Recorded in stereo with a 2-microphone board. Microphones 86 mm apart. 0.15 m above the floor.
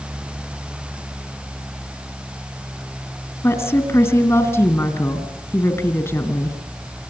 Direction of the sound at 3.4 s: 35° left (ahead or behind).